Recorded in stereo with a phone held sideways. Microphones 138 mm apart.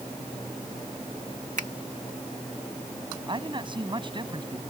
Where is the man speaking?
35° right (ahead or behind).